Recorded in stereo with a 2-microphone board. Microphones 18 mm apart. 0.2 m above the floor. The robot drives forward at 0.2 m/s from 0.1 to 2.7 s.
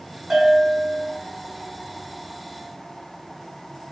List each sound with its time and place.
0.3 s a bell: 45° right (ahead or behind), 1.0 m; by 1.1 s 40° right (ahead or behind), 1.1 m